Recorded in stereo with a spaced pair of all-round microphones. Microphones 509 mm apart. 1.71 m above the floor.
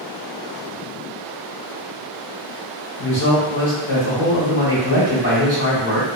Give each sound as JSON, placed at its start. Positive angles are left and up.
{"t": 3.0, "sound": "a man speaking", "side_deg": 55, "distance_m": 1.5}